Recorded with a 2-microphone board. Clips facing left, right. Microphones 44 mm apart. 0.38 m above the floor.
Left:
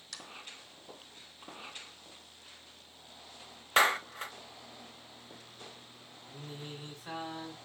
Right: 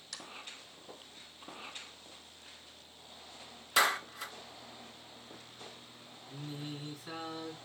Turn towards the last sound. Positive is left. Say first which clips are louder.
# right 2 dB
turn(degrees=50)  # may be behind; listen again after turning